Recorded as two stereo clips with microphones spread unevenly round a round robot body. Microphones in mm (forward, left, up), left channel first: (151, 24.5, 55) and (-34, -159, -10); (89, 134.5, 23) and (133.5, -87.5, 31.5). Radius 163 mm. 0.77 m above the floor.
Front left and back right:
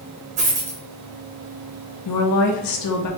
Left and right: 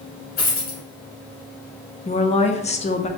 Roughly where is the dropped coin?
Behind.